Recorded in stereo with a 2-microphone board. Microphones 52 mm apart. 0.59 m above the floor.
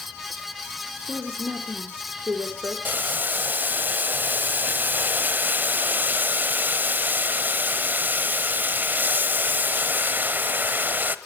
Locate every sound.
1.1 s a woman speaking: 40° right (ahead or behind), 1.9 m
2.9 s boiling: 40° right (ahead or behind), 0.8 m